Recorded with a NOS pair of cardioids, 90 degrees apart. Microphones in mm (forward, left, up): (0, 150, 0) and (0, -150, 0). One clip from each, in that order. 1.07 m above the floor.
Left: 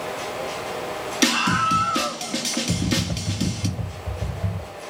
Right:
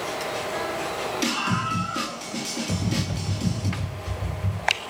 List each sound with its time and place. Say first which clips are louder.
1.2 s a scream: left 8 dB; 60° left, 2 m
2.7 s typing on a keyboard: left 4 dB; 15° left, 2.0 m